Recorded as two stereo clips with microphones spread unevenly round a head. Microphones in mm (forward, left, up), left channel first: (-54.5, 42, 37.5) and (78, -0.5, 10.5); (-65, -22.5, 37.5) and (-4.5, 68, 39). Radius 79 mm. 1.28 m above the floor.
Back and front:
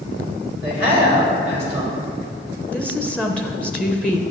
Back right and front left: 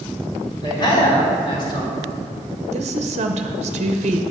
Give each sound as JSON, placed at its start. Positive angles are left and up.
{"t": 0.6, "sound": "a man speaking", "azimuth_deg": -170, "distance_m": 3.0}
{"t": 2.7, "sound": "a woman speaking", "azimuth_deg": 80, "distance_m": 0.8}